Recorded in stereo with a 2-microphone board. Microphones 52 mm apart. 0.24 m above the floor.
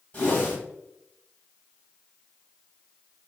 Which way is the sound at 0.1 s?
30° left (ahead or behind).